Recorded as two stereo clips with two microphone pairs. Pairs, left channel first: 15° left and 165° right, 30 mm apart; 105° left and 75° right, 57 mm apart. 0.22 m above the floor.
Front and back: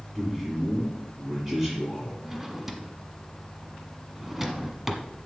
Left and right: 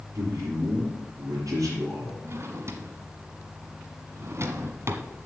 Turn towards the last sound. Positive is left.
turn(degrees=-85)